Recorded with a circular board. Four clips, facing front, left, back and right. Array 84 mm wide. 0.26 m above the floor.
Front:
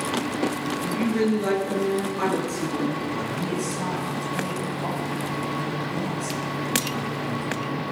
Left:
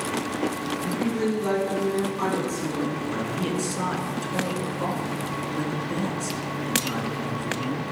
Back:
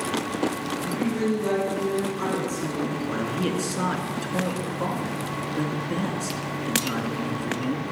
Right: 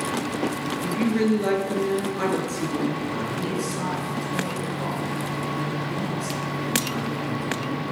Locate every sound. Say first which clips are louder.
0.8 s a woman speaking: right 4 dB, front 2 dB; 60° right, 4 m
3.1 s a man speaking: even, back 1 dB; 160° left, 3.5 m